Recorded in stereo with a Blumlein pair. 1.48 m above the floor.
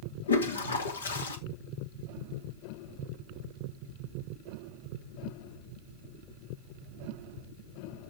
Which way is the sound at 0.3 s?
70° left.